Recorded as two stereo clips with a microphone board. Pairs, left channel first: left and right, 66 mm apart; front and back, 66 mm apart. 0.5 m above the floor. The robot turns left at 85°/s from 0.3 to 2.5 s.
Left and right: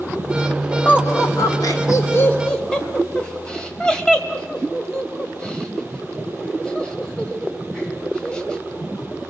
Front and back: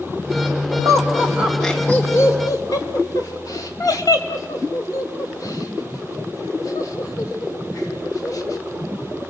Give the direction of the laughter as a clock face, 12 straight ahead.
7 o'clock.